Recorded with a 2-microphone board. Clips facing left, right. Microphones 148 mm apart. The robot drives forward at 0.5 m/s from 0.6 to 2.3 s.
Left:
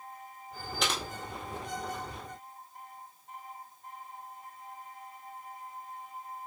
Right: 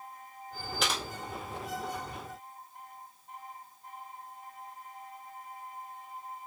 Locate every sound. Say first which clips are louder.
0.8 s typing on a keyboard: even; centre (ahead or behind), 1.6 m